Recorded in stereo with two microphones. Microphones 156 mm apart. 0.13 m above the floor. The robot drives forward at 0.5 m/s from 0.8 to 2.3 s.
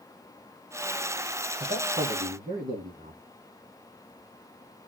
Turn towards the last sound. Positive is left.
turn(degrees=-60)  # may be behind; listen again after turning